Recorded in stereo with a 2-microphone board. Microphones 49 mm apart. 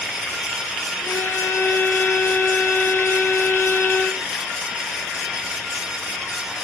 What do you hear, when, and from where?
1.0 s a violin: 60° left (ahead or behind), 0.7 m